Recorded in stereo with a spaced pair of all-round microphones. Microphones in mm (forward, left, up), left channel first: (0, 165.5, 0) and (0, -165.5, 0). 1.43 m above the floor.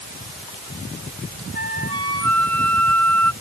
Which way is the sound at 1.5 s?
45° right (ahead or behind).